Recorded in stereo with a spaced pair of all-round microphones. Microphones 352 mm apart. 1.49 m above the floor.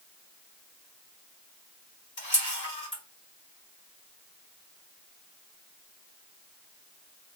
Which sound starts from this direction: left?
A camera shutter, at 2.2 s.